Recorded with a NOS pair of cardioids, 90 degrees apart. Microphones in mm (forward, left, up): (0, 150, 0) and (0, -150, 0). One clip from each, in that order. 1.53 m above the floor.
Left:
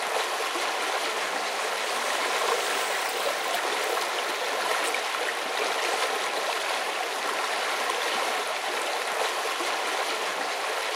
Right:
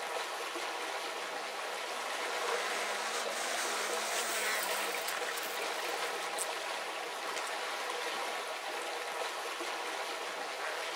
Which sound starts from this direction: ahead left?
Running water, at 0.0 s.